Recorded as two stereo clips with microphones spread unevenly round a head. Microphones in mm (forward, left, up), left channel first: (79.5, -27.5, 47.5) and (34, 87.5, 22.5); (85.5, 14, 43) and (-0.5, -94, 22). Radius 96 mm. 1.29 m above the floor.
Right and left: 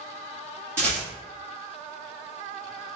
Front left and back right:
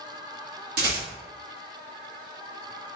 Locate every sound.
0.8 s a rattle: 170° right, 1.7 m